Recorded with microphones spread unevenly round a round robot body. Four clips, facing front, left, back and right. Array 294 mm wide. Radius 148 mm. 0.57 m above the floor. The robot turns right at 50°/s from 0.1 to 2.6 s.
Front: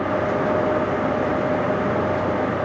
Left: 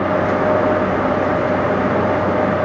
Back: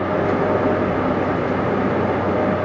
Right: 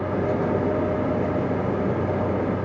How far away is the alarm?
No alarm in this recording.